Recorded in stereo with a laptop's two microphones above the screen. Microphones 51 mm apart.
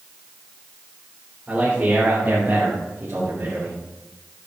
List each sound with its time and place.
1.5 s a man speaking: 30° right (ahead or behind), 3.5 m; by 3.8 s 65° right (ahead or behind), 2.5 m